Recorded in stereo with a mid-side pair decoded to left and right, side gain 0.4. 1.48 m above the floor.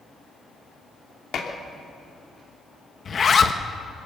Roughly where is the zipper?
Ahead left.